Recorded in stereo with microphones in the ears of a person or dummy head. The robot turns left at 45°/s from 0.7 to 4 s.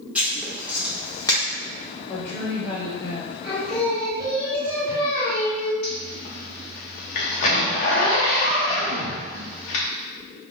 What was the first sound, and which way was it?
Writing, 10° right (ahead or behind).